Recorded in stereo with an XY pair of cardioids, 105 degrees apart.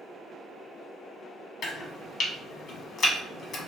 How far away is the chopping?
About 1.1 m.